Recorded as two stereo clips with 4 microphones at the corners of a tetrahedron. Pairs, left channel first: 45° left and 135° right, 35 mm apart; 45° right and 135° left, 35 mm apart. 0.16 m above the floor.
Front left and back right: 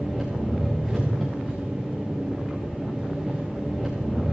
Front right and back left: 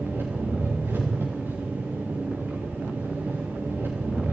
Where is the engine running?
130° left, 6.5 m.